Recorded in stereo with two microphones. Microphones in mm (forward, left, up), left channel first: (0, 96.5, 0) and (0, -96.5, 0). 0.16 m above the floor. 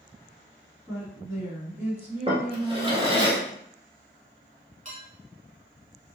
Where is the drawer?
30° right (ahead or behind), 1.0 m.